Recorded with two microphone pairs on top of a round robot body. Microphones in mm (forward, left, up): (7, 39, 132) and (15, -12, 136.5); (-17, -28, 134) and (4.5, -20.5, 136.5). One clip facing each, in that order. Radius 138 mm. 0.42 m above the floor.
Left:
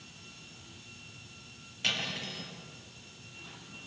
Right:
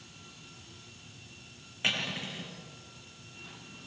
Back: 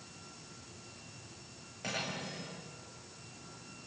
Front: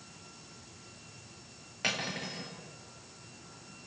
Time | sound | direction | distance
1.8 | cutlery clinking | 15° right | 6 m